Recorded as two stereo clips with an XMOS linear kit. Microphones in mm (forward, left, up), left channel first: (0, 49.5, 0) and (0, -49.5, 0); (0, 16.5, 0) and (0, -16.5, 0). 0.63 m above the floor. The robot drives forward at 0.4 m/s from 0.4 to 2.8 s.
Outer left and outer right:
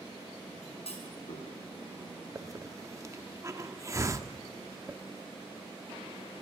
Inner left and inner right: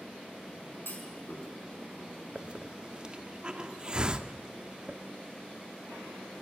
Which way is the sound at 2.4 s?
35° right (ahead or behind).